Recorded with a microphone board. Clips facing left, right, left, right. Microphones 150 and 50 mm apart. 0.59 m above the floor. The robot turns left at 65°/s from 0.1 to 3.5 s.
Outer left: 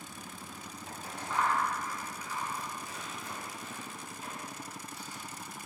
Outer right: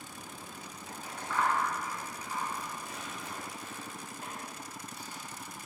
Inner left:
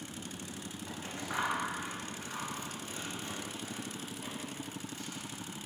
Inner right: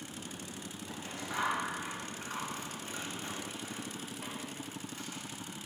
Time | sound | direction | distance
0.9 | scissors | 50° left (ahead or behind) | 2 m